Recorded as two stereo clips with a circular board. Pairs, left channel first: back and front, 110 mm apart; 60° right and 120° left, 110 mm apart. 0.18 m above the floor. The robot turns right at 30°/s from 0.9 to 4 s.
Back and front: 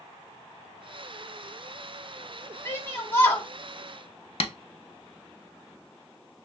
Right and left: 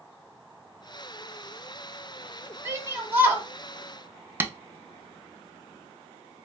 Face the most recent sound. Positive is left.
turn(degrees=-175)